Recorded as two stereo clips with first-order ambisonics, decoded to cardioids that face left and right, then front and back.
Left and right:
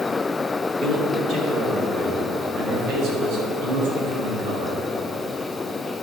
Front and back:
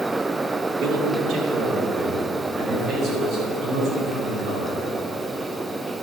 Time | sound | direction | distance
0.8 | a man speaking | 145° right | 3 m